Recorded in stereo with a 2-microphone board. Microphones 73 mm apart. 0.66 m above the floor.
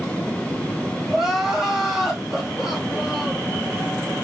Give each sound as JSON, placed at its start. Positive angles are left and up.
{"t": 1.1, "sound": "crying", "side_deg": -5, "distance_m": 1.5}